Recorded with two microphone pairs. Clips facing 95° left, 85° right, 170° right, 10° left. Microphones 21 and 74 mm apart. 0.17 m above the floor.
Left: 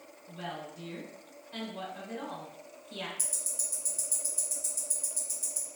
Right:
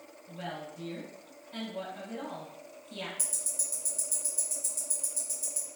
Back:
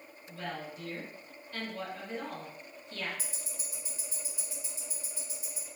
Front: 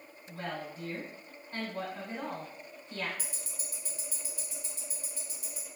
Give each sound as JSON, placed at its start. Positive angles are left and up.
{"t": 0.3, "sound": "a woman speaking", "azimuth_deg": 25, "distance_m": 1.2}
{"t": 3.2, "sound": "ticking", "azimuth_deg": -165, "distance_m": 1.2}